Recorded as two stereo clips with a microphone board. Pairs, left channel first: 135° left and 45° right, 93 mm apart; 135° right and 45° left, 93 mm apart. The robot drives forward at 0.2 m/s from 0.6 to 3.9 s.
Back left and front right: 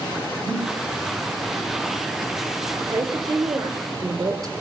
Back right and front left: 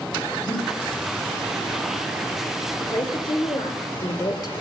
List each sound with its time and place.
0.4 s breathing: 145° right, 8 m
2.8 s a woman speaking: 95° right, 3 m; by 4.5 s 100° right, 3 m